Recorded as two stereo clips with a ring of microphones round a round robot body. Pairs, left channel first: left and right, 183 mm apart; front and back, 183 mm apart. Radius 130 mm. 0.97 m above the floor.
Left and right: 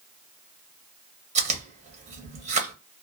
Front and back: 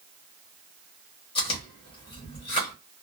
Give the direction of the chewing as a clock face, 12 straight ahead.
2 o'clock.